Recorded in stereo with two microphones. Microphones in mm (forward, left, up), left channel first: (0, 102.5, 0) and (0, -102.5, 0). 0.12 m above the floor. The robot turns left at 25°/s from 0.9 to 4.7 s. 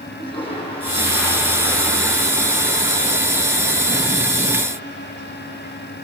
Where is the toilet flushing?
25° left, 6.5 m; by 5.7 s 70° right, 6.5 m.